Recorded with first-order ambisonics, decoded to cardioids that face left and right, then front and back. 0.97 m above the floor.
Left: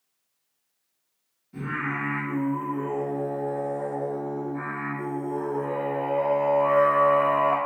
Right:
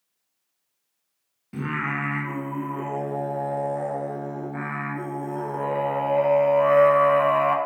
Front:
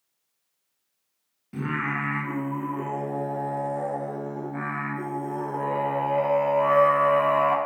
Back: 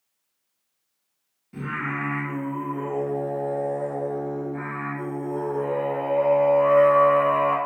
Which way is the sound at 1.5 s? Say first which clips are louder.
Right 2 dB, front 1 dB; 65° right.